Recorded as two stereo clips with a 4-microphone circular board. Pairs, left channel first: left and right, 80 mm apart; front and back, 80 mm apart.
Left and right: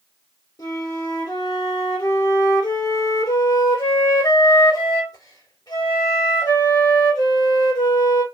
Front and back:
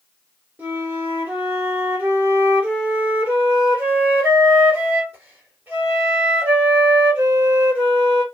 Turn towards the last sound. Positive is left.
turn(degrees=115)